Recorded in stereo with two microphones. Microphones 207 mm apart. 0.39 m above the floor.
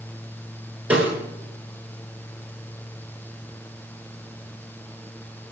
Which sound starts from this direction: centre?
A snare drum, at 0.9 s.